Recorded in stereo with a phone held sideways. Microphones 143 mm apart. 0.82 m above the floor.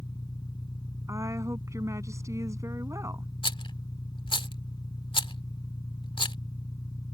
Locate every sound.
0.0 s an engine running: 30° left (ahead or behind)
1.1 s a woman speaking: 20° right (ahead or behind)
3.4 s a rattle: 35° left (ahead or behind)